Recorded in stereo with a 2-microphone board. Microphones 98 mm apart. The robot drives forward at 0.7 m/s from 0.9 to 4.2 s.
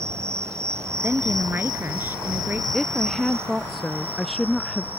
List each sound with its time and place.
0.0 s an insect: 30° right (ahead or behind); by 5.0 s 20° right (ahead or behind)
1.0 s a woman speaking: 20° right (ahead or behind)
2.7 s a woman speaking: centre (ahead or behind)